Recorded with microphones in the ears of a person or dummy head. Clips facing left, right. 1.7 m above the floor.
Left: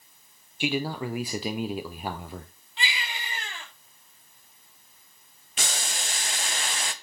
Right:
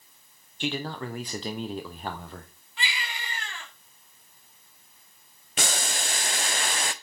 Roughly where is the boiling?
Right.